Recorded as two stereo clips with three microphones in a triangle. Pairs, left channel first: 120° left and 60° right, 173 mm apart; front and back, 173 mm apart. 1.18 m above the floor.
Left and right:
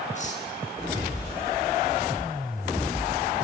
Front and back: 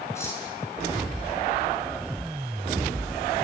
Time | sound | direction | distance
0.1 | cutlery clinking | 75° left | 7 m